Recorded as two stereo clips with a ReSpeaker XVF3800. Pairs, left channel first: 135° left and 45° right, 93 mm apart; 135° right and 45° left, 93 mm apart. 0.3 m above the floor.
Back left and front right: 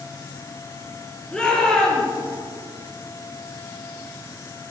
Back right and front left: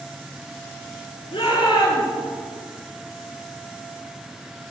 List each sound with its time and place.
1.3 s a shout: 145° right, 6.5 m